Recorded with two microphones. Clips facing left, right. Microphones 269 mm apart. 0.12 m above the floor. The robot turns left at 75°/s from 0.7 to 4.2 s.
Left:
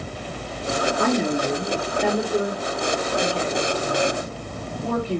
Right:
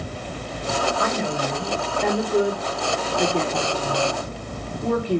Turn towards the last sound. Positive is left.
turn(degrees=-15)  # may be behind; listen again after turning